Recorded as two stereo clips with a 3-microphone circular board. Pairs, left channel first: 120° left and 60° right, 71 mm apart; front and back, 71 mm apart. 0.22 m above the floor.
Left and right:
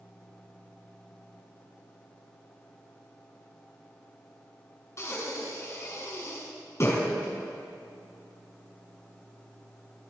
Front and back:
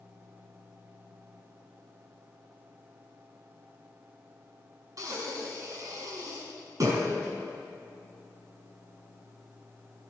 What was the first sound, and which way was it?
Breathing, 160° left.